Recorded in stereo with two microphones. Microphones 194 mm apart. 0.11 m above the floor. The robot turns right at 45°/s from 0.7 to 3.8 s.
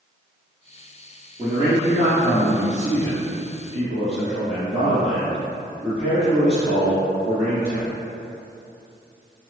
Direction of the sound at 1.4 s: 135° right.